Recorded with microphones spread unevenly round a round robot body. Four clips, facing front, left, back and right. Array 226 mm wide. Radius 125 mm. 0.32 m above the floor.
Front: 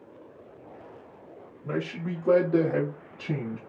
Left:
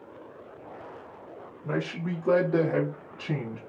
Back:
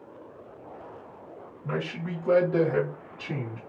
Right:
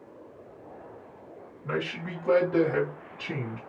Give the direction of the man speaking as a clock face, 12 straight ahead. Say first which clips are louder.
Left 1 dB, front 1 dB; 10 o'clock.